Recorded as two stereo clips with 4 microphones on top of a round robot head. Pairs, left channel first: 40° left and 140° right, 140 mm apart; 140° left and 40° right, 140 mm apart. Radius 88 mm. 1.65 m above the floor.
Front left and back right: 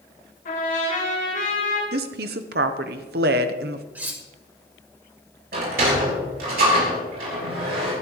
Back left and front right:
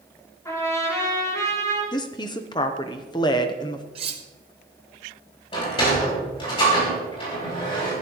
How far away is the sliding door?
About 6 m.